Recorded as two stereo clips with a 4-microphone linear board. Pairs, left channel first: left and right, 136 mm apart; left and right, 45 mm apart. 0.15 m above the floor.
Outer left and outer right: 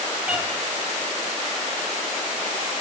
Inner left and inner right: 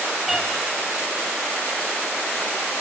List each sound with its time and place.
0.3 s a cat meowing: 10° right (ahead or behind), 1.7 m